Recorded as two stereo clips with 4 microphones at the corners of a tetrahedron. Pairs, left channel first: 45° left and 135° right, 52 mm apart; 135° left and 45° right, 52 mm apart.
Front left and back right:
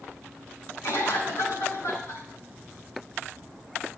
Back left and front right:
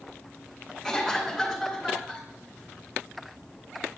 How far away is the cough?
About 3.5 m.